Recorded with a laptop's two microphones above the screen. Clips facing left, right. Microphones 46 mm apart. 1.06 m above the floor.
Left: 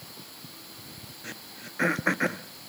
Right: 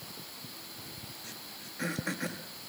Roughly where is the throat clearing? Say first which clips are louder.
Left 5 dB; left.